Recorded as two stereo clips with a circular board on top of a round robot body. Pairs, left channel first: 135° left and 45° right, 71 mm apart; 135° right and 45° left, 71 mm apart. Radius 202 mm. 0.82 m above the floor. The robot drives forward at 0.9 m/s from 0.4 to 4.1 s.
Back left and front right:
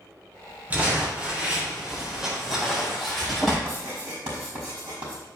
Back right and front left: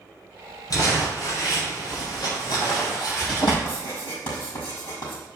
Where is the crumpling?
110° right, 4 m; by 3.5 s 140° right, 5.5 m.